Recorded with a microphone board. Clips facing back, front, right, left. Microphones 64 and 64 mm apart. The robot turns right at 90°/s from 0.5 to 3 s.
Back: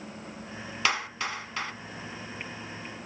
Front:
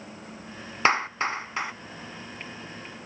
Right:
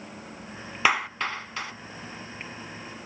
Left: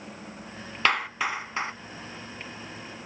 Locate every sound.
0.8 s a clap: 15° right, 1.0 m; by 1.7 s 60° left, 1.0 m